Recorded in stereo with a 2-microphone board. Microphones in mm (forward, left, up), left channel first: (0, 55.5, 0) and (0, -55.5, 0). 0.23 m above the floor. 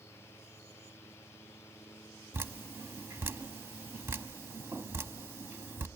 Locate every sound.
2.3 s dripping: 25° right (ahead or behind), 0.7 m